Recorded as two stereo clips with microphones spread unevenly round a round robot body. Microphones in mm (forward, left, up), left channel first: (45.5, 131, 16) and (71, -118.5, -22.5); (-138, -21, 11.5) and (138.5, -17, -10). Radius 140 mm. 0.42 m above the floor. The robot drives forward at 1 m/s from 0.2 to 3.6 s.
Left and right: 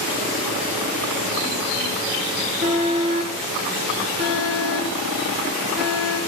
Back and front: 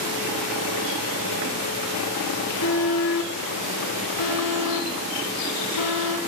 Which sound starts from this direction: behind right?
An alarm, at 2.6 s.